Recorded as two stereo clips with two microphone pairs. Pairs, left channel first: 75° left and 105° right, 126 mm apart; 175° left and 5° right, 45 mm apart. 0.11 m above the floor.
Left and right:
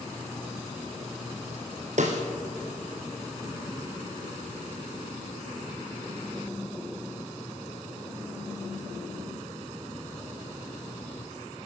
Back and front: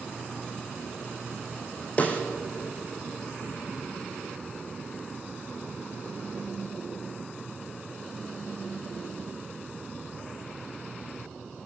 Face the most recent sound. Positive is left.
turn(degrees=-130)